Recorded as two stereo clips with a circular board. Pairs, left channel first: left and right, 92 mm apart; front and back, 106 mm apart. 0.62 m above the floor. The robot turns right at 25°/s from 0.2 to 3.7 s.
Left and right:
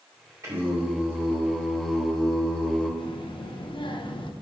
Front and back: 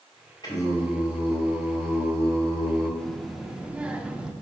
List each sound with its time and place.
0.4 s singing: 40° right, 2 m; by 2.9 s 25° left, 2 m
3.0 s a child speaking: 85° left, 0.7 m; by 4.3 s 100° left, 0.7 m